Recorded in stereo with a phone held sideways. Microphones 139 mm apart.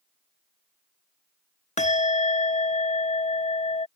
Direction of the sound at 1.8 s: 60° left (ahead or behind).